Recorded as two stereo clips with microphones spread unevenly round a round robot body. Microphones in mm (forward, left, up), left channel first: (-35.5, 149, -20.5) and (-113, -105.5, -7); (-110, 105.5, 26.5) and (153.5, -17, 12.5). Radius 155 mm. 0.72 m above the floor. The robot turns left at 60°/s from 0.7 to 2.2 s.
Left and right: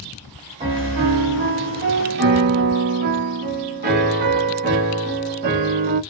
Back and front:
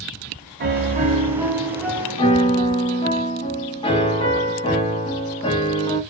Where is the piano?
50° right, 0.8 m; by 6.0 s 140° right, 0.8 m.